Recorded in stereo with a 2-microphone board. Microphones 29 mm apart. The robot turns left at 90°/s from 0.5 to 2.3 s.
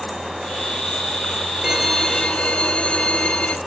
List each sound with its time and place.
1.6 s a violin: 160° right, 1.2 m; by 3.6 s 140° left, 1.2 m